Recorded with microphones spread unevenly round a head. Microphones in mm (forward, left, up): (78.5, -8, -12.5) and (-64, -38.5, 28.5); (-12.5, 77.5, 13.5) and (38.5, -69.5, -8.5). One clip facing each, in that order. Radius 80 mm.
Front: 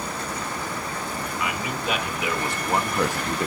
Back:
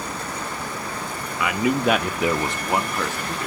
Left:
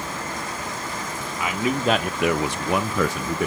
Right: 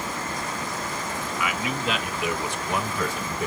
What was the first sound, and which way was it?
A man speaking, 170° left.